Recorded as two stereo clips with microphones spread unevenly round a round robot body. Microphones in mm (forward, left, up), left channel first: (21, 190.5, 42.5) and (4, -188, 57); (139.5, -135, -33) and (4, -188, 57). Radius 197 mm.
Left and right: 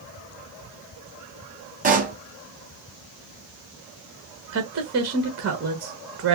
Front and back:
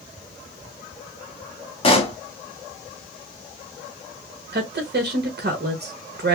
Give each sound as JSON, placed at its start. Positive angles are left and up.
{"t": 1.8, "sound": "a pop", "azimuth_deg": -20, "distance_m": 1.3}
{"t": 4.5, "sound": "a woman speaking", "azimuth_deg": -130, "distance_m": 1.1}